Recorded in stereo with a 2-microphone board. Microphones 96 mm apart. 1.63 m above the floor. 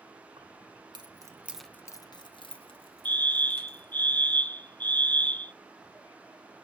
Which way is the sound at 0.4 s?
65° right (ahead or behind).